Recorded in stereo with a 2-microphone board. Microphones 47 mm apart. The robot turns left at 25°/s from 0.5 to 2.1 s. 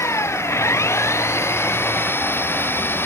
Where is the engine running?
95° left; by 3.1 s 55° left.